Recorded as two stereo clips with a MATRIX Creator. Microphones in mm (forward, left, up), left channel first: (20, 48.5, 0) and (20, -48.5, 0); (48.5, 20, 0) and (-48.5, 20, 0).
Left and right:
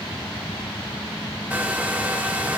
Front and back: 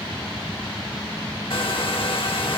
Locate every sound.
1.5 s a hair dryer: 15° right, 1.1 m